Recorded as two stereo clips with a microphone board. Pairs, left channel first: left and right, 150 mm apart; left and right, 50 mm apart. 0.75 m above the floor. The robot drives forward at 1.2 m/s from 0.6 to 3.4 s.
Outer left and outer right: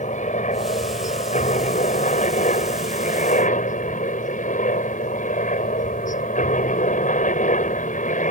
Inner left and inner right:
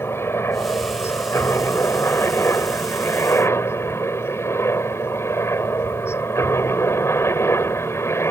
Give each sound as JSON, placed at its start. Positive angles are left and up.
{"t": 0.0, "sound": "a helicopter", "side_deg": 55}